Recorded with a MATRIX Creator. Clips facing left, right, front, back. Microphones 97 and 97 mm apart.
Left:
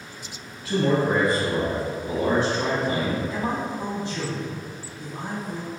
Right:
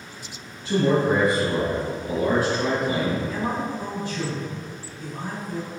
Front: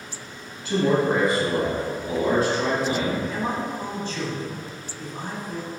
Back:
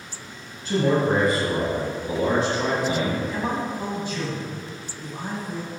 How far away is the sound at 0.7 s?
About 1.4 m.